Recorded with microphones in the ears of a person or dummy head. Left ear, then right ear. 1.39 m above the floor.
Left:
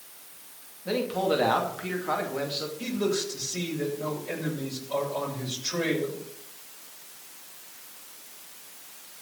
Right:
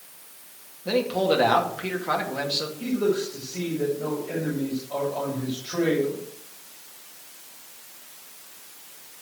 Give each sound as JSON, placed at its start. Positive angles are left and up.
{"t": 0.8, "sound": "a man speaking", "side_deg": -5, "distance_m": 2.5}
{"t": 2.8, "sound": "a man speaking", "side_deg": 85, "distance_m": 6.5}